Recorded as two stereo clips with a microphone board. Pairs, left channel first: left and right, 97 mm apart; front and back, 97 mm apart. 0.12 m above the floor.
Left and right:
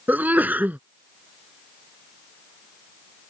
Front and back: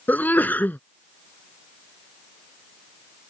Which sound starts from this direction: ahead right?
A sneeze, at 0.1 s.